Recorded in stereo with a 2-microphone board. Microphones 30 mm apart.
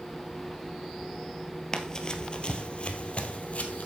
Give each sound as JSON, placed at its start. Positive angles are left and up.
{"t": 1.7, "sound": "running footsteps", "side_deg": 20, "distance_m": 1.4}